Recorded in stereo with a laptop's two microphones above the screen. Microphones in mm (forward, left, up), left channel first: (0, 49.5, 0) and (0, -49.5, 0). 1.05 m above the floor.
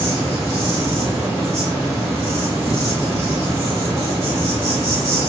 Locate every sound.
0.0 s an insect: 30° right (ahead or behind), 1.2 m